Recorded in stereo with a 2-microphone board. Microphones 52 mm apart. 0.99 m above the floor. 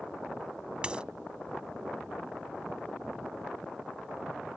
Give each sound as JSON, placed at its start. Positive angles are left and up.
{"t": 0.8, "sound": "a dropped coin", "side_deg": -20}